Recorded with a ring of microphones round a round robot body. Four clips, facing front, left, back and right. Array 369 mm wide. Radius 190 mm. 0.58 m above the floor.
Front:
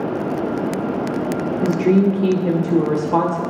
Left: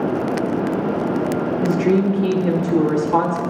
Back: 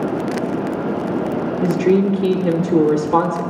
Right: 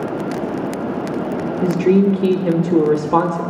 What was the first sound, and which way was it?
A woman speaking, 100° right.